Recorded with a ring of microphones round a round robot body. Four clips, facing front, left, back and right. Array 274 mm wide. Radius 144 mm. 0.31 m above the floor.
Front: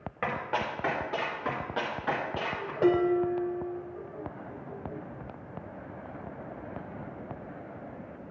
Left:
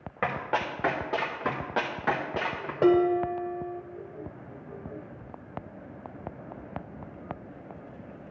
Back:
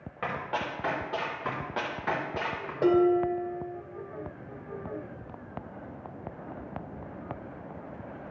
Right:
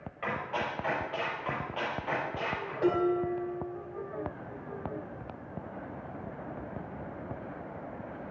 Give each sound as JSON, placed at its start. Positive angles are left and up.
{"t": 0.2, "sound": "running footsteps", "azimuth_deg": 75, "distance_m": 2.5}
{"t": 2.8, "sound": "dishes clattering", "azimuth_deg": 75, "distance_m": 1.0}